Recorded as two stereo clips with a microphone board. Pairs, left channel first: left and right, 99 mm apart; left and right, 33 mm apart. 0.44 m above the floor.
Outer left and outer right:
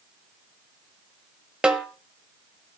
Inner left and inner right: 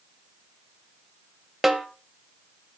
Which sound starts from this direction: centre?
A snare drum, at 1.6 s.